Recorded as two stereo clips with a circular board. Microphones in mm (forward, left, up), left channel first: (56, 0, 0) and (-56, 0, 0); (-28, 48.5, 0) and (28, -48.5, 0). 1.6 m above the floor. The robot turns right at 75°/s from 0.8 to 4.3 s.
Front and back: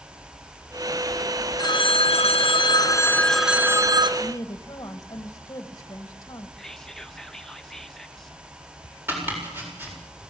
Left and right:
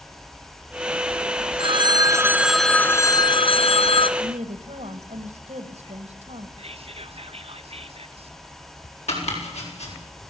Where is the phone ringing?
45° right, 0.8 m; by 4.1 s 145° left, 0.8 m.